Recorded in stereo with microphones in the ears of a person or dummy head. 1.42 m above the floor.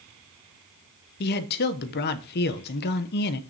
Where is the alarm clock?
I don't hear an alarm clock.